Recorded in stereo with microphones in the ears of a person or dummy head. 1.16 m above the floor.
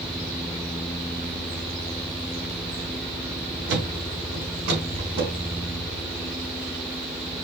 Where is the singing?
No singing in this recording.